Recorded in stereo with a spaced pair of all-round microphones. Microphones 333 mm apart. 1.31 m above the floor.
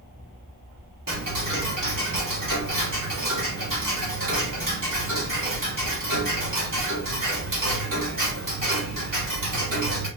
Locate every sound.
1.1 s ticking: 70° right (ahead or behind), 2 m